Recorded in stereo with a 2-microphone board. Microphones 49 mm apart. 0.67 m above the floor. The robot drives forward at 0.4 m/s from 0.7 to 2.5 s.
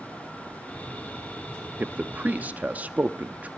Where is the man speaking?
35° right (ahead or behind), 0.6 m.